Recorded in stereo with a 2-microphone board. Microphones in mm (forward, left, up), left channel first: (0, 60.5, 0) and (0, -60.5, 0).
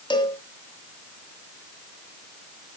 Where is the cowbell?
40° left (ahead or behind), 1.5 m.